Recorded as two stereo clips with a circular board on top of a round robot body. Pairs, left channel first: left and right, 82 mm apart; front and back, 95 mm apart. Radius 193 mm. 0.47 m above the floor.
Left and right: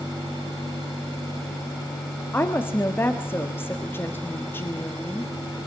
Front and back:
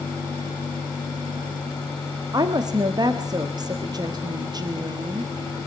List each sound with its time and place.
2.3 s a woman speaking: 145° left, 1.5 m